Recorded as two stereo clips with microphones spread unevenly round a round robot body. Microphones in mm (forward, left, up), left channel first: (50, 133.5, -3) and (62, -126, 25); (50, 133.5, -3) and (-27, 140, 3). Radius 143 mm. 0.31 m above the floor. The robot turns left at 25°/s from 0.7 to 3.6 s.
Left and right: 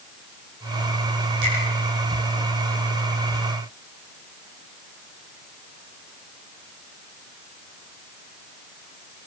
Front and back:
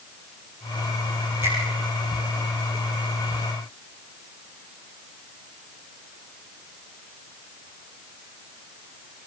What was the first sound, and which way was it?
A finger snap, 125° right.